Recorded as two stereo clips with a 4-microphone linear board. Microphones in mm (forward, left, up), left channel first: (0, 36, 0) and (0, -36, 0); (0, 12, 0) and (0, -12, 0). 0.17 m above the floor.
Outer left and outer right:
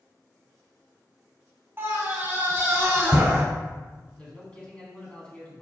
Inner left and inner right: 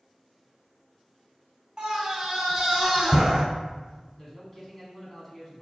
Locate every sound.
1.8 s a scream: 35° right (ahead or behind), 2.0 m
4.2 s a man speaking: 20° left (ahead or behind), 1.5 m